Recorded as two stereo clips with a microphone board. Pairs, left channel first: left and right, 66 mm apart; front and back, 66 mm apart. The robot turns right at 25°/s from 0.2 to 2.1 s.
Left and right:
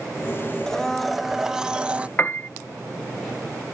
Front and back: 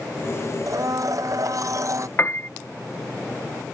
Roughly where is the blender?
Behind.